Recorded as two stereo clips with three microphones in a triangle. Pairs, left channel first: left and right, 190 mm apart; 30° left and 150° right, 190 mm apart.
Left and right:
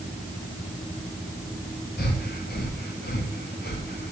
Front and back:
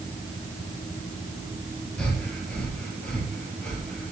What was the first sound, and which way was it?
Breathing, 115° left.